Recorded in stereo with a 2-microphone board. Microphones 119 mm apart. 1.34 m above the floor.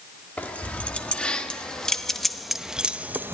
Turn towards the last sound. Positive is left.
turn(degrees=-20)  # may be behind; listen again after turning